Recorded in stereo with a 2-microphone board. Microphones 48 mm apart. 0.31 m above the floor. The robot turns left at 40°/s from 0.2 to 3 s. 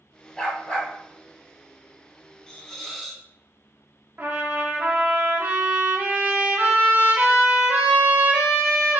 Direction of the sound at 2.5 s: 15° left (ahead or behind).